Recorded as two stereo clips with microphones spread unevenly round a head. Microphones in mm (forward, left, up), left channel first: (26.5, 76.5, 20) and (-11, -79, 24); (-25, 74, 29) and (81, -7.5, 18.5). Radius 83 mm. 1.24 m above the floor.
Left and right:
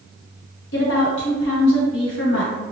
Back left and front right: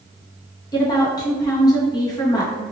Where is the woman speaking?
80° left, 1.2 m.